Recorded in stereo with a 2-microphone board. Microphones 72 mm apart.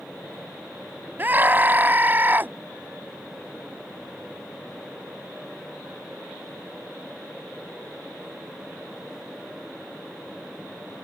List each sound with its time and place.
1.2 s a scream: 25° right (ahead or behind)